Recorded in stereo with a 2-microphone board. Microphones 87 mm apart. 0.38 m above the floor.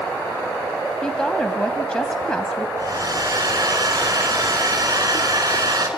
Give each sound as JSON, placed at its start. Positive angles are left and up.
{"t": 1.0, "sound": "a woman speaking", "side_deg": 10, "distance_m": 2.5}
{"t": 2.8, "sound": "a hair dryer", "side_deg": -45, "distance_m": 4.0}